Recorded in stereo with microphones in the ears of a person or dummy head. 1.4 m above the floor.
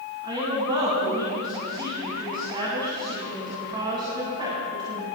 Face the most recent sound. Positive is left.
turn(degrees=-25)  # may be behind; listen again after turning